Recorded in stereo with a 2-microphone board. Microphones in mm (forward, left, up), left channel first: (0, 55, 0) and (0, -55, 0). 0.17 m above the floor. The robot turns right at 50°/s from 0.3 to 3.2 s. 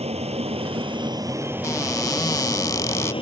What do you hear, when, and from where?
0.0 s an aircraft: 85° right; by 3.2 s 60° left
1.6 s a cupboard door: 55° left; by 3.1 s 130° left